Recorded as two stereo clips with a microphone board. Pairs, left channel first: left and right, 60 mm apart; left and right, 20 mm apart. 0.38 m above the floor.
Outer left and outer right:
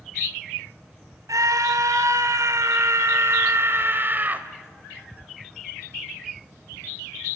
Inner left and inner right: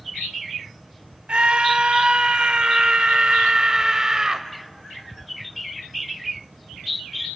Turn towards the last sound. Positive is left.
turn(degrees=-25)  # may be behind; listen again after turning